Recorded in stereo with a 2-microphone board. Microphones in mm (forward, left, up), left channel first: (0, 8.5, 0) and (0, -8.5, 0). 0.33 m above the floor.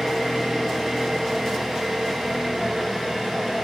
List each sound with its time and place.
0.0 s an engine running: 35° right (ahead or behind), 3 m